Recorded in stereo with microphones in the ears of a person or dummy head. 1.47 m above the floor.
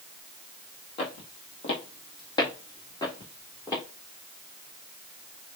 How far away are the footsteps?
About 2 m.